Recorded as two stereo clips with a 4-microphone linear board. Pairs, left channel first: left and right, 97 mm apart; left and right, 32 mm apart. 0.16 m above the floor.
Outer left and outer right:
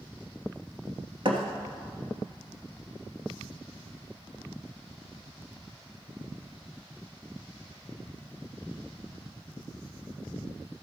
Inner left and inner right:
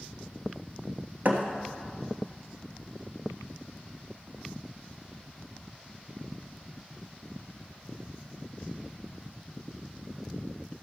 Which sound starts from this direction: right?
A thud, at 1.2 s.